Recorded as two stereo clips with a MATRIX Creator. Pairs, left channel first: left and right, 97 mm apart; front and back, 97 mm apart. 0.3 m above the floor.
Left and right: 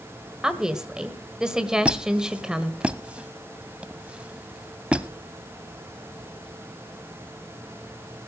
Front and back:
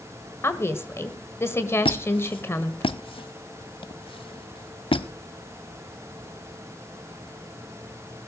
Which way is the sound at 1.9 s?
15° right.